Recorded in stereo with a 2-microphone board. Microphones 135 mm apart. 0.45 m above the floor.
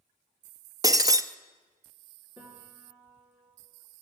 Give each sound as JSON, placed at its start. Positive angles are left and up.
{"t": 0.8, "sound": "breaking glass", "side_deg": -25, "distance_m": 0.5}
{"t": 2.4, "sound": "a piano", "side_deg": -15, "distance_m": 4.5}